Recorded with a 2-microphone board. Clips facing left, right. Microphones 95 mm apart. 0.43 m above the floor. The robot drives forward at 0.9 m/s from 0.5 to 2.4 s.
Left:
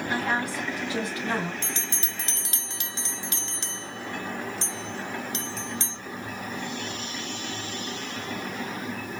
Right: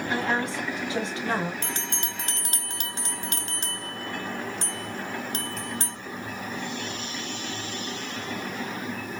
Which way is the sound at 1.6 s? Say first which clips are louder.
Right 2 dB; 50° right (ahead or behind).